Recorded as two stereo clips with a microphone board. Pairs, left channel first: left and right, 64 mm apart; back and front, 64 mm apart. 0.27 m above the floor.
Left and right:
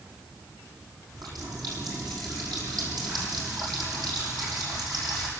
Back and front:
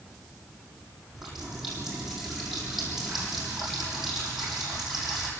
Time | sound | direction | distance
1.1 | a running tap | 85° right | 8 m